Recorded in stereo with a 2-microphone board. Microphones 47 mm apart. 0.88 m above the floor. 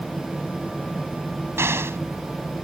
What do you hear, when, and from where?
1.6 s an explosion: 70° right (ahead or behind)